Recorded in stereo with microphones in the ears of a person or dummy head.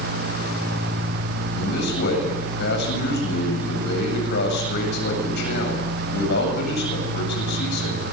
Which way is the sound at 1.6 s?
60° left (ahead or behind).